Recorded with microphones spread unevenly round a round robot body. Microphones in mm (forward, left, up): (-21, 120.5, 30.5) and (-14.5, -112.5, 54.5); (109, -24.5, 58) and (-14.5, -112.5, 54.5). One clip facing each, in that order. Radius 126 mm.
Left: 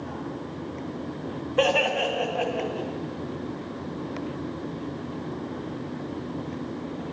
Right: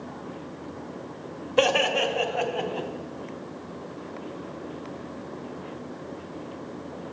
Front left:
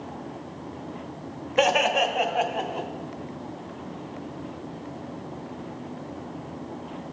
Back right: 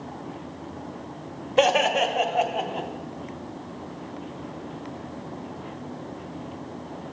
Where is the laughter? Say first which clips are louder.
Right 1 dB, back right 2 dB; 95° right, 1.3 m; by 2.9 s 80° right, 2.5 m.